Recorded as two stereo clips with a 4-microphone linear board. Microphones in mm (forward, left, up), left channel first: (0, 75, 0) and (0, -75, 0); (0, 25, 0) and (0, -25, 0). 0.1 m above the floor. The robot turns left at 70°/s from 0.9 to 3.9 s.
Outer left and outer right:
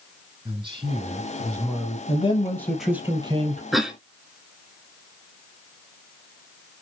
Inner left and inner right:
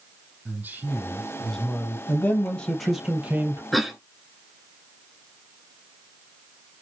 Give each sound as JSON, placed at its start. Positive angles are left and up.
{"t": 0.5, "sound": "a man speaking", "azimuth_deg": -145, "distance_m": 3.5}
{"t": 2.1, "sound": "a man speaking", "azimuth_deg": 50, "distance_m": 3.0}
{"t": 3.7, "sound": "a cough", "side_deg": 0, "distance_m": 1.1}